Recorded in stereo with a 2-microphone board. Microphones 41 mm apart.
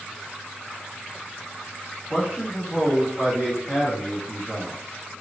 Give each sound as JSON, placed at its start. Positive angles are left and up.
{"t": 2.1, "sound": "a man speaking", "side_deg": -30, "distance_m": 1.8}